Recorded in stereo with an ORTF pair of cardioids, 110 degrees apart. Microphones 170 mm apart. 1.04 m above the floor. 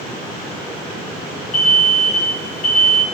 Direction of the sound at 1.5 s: 45° left.